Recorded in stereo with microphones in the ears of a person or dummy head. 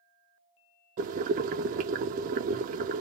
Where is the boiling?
45° right (ahead or behind), 0.6 m.